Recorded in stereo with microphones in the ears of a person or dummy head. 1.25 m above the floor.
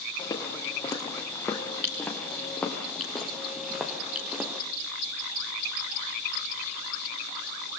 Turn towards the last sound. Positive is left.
turn(degrees=-5)  # may be behind; listen again after turning